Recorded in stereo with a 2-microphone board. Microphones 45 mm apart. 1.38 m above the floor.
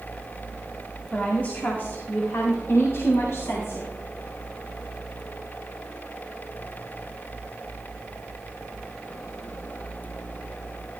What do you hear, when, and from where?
1.1 s a woman speaking: 25° left (ahead or behind), 2 m; by 3.9 s 85° left, 3.5 m